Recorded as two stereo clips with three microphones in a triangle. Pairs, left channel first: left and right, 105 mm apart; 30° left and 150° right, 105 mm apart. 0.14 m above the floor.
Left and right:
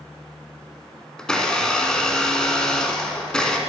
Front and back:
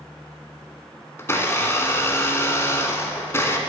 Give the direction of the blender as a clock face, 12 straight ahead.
11 o'clock.